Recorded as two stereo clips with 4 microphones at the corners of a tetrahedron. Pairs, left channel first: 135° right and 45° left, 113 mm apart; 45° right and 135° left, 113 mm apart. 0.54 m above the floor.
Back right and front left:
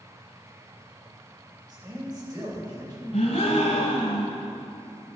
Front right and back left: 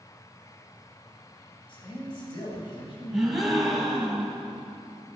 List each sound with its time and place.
1.7 s a man speaking: 5° right, 3 m
3.1 s a gasp: 135° right, 1.5 m